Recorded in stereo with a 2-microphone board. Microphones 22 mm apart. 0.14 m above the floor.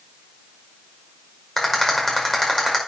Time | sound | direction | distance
1.6 | a rattle | 20° left (ahead or behind) | 5 m